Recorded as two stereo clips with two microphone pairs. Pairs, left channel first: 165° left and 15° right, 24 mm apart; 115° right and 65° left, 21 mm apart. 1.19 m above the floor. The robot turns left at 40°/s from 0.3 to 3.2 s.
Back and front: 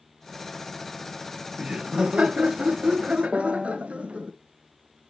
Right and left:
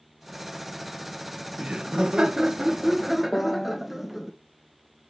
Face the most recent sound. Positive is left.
turn(degrees=-85)